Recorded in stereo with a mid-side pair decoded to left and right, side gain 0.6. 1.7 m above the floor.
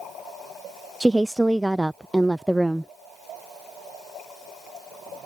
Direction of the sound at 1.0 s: 10° right.